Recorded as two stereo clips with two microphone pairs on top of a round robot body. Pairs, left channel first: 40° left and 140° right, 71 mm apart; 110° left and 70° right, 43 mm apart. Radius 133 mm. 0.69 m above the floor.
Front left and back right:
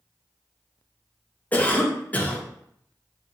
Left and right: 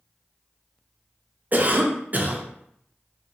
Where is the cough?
30° right, 0.8 m.